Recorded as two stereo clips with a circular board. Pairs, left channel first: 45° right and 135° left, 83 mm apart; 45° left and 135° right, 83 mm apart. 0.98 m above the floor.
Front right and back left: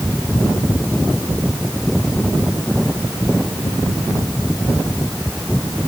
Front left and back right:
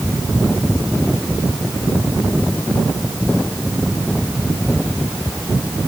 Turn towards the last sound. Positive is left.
No sound to turn to.